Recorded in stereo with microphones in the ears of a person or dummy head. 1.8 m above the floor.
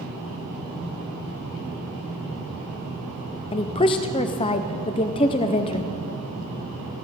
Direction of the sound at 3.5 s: 30° left (ahead or behind).